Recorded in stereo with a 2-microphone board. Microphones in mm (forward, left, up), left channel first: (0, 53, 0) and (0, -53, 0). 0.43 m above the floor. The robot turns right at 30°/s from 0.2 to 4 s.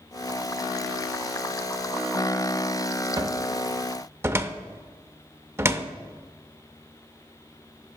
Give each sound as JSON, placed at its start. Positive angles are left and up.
{"t": 3.2, "sound": "a cupboard door", "side_deg": -35, "distance_m": 0.5}